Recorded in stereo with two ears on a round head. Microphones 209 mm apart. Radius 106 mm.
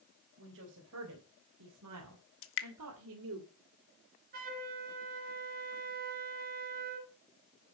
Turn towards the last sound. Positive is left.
turn(degrees=-35)  # may be behind; listen again after turning